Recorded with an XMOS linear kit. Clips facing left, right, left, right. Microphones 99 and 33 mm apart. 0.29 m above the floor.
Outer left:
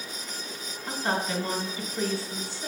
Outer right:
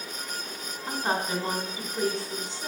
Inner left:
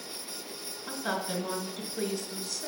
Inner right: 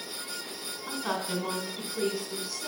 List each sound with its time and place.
0.9 s a woman speaking: 20° right (ahead or behind), 2.5 m